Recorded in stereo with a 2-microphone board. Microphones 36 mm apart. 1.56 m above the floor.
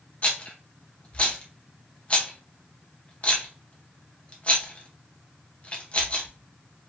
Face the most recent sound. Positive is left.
turn(degrees=30)  # may be behind; listen again after turning